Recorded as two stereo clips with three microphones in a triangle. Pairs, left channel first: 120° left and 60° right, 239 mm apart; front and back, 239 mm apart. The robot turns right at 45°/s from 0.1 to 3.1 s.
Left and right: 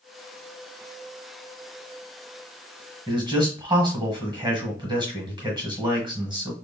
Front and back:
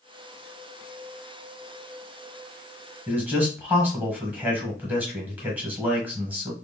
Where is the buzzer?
No buzzer in this recording.